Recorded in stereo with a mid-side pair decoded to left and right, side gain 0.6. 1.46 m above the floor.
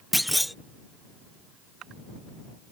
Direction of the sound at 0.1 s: Straight ahead.